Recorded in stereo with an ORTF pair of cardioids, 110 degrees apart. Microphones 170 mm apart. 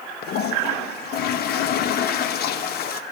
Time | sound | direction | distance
0.2 | a toilet flushing | 70° left | 0.7 m